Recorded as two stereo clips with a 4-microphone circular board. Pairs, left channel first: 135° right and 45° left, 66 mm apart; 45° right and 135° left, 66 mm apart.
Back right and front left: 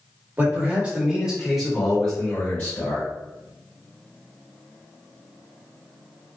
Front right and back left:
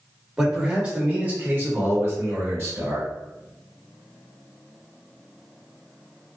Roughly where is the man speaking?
Ahead left.